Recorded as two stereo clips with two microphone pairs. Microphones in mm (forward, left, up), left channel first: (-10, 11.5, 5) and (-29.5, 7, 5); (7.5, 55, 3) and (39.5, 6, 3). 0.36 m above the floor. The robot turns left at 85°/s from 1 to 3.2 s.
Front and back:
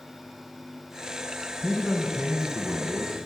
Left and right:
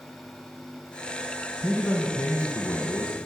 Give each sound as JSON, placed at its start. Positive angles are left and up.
{"t": 1.6, "sound": "a man speaking", "azimuth_deg": -140, "distance_m": 3.0}